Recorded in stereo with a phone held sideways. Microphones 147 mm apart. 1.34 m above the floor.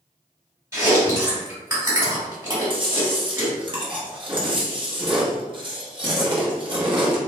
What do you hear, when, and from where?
0.7 s chewing: 20° right (ahead or behind), 1.9 m
2.7 s chewing: 35° right (ahead or behind), 1.0 m